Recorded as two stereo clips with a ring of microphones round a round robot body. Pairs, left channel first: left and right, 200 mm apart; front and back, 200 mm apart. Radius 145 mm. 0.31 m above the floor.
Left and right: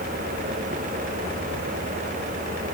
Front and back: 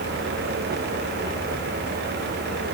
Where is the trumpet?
I don't hear a trumpet.